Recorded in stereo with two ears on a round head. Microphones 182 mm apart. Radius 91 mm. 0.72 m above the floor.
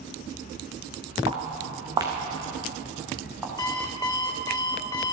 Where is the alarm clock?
20° left (ahead or behind), 1.6 m.